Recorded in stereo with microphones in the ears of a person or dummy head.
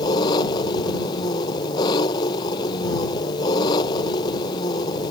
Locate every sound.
0.0 s an engine running: 25° left (ahead or behind)